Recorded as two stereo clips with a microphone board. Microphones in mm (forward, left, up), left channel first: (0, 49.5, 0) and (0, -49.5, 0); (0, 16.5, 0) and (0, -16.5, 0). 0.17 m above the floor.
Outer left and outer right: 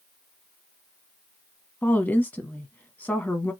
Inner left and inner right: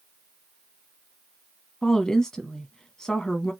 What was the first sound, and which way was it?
A woman speaking, 15° left (ahead or behind).